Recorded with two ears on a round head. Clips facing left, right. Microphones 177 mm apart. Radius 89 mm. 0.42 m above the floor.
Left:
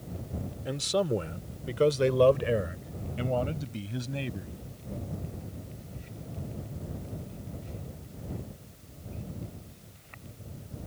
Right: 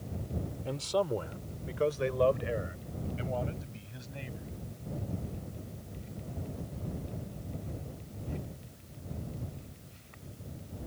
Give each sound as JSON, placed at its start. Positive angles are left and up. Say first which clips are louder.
{"t": 0.7, "sound": "a man speaking", "louder": "left 3 dB", "side_deg": 15}